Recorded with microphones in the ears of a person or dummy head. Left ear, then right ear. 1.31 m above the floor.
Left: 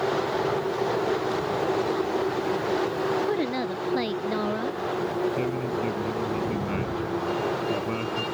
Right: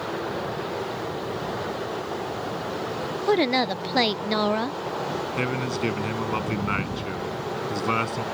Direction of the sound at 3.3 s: 30° right (ahead or behind).